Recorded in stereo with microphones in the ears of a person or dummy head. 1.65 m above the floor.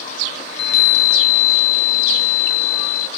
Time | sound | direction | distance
0.5 | a chime | 65° left (ahead or behind) | 0.5 m